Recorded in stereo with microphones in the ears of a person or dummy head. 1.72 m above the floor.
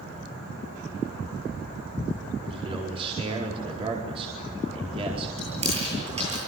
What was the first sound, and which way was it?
A man speaking, 30° right (ahead or behind).